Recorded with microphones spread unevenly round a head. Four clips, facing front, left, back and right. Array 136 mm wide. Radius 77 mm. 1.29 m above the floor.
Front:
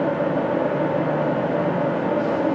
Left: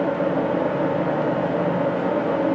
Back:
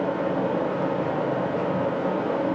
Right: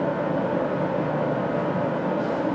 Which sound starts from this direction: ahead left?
A fan, at 0.0 s.